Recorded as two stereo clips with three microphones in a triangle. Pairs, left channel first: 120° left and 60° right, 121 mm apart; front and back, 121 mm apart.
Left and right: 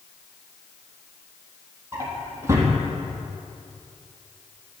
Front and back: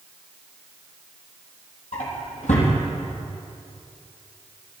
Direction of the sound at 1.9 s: 5° left.